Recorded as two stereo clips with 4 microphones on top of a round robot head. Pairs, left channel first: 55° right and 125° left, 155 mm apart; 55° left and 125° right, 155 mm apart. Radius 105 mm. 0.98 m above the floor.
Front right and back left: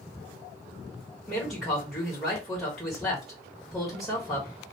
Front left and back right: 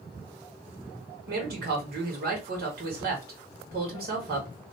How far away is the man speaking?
About 1.9 m.